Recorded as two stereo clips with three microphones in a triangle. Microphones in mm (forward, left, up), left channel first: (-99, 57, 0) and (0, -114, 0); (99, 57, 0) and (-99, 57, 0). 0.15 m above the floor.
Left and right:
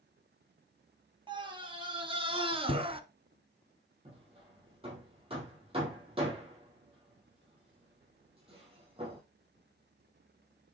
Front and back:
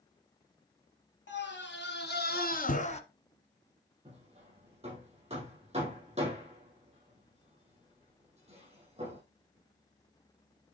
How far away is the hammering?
About 6 m.